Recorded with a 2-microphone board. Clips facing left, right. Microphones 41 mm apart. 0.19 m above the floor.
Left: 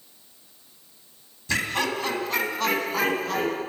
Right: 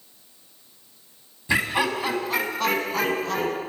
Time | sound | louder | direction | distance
1.5 | laughter | right 3 dB | 20° right (ahead or behind) | 1.0 m